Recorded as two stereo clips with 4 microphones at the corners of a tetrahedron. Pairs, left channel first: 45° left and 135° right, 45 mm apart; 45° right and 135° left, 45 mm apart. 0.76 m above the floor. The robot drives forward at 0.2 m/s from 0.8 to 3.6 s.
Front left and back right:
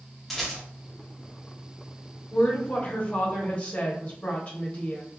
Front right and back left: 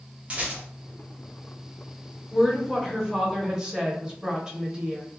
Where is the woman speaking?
55° left, 1.0 m; by 5.0 s 80° left, 0.9 m.